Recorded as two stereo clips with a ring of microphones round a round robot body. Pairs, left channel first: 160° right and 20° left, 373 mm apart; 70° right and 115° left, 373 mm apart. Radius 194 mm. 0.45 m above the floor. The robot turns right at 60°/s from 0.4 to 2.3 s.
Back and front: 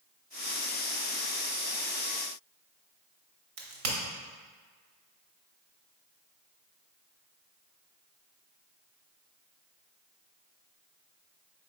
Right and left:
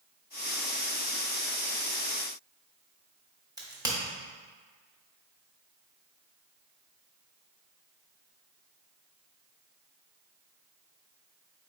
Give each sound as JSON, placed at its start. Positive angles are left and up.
{"t": 3.6, "sound": "a crack", "azimuth_deg": 35, "distance_m": 1.1}